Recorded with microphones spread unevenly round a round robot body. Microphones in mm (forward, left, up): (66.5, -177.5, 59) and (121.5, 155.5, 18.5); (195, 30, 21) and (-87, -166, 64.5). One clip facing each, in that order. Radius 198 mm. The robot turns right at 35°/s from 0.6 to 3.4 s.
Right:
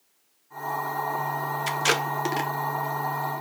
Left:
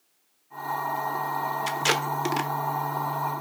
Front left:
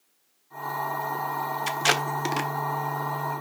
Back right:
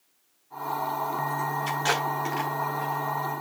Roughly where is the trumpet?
I don't hear a trumpet.